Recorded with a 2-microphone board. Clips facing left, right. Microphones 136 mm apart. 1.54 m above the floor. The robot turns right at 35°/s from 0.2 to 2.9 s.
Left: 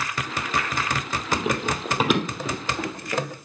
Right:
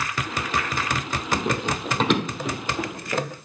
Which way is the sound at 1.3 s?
10° left (ahead or behind).